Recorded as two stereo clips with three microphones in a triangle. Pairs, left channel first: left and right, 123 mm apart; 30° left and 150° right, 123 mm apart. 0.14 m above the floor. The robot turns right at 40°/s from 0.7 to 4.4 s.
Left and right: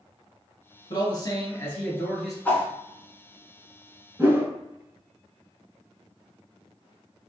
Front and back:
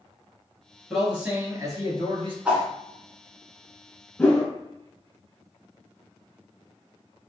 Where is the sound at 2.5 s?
145° left, 1.0 m; by 2.7 s 150° left, 1.0 m.